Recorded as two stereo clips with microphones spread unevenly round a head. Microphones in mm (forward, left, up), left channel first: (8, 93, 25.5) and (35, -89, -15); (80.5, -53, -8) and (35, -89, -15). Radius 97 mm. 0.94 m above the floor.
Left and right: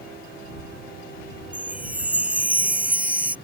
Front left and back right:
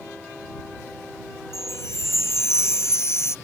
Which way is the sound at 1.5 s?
Straight ahead.